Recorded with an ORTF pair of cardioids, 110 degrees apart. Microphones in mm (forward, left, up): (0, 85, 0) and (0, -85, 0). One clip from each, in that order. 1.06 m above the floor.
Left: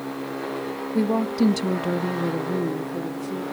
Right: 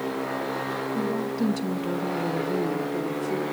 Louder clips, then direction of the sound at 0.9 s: Left 4 dB; 60° left.